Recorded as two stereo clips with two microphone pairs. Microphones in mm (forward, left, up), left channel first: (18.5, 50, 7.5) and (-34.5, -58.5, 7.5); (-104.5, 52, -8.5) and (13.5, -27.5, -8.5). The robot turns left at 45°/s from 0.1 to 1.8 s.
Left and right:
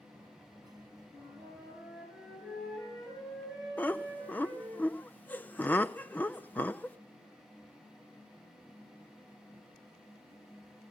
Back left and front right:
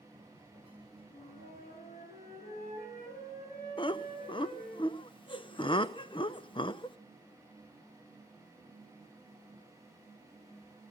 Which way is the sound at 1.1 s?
175° right.